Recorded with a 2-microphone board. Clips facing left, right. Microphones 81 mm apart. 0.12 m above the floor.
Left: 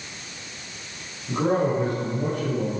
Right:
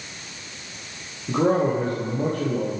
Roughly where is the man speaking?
Right.